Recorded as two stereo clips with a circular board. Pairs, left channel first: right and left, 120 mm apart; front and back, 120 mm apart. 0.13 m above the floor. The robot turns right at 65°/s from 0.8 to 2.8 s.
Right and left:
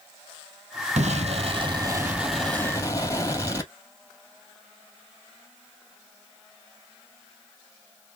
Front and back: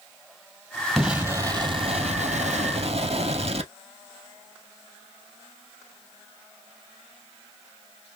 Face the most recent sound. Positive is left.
turn(degrees=-150)